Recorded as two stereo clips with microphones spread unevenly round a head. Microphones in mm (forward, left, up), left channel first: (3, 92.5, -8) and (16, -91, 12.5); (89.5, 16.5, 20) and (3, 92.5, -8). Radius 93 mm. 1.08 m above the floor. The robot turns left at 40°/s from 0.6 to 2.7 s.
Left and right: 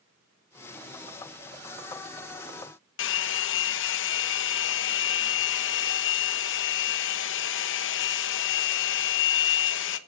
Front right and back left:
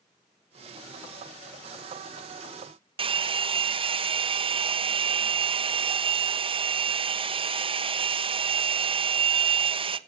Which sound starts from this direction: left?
A hair dryer, at 3.0 s.